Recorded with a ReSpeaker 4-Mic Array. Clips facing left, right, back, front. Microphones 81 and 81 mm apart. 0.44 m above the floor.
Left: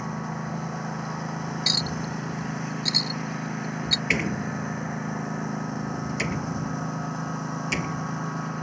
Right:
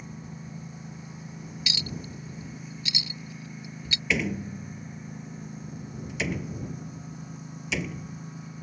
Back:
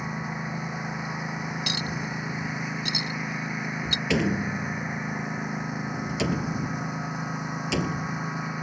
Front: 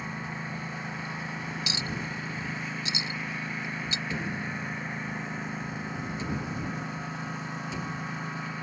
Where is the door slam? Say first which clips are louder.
Even, back 12 dB; straight behind.